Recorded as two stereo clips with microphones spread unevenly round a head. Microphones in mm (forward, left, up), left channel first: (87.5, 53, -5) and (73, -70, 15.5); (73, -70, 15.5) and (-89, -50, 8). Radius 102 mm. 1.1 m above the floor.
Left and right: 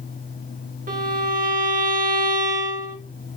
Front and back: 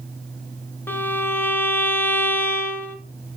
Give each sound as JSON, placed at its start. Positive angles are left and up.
{"t": 0.9, "sound": "a violin", "azimuth_deg": -85, "distance_m": 2.5}